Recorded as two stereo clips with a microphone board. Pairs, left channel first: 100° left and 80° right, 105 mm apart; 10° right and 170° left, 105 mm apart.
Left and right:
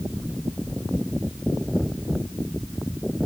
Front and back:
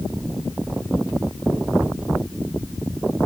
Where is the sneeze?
I don't hear a sneeze.